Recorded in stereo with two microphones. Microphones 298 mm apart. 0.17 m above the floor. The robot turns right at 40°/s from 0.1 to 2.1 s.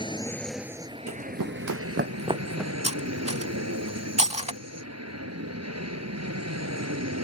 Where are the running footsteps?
55° right (ahead or behind); by 2.7 s centre (ahead or behind).